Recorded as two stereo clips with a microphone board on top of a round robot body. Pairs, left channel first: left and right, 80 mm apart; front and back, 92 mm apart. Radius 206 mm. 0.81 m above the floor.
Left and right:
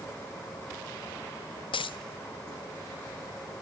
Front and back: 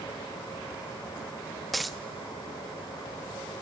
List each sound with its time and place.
1.7 s a dropped coin: 90° left, 0.6 m